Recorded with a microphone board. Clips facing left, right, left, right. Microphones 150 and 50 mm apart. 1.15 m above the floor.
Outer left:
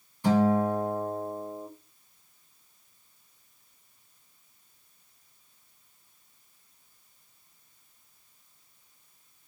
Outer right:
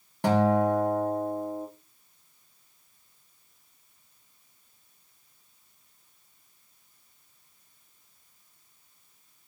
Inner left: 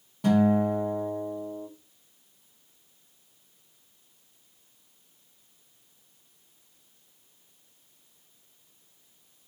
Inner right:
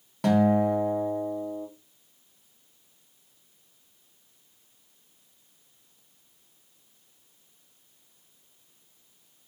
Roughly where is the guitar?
Right.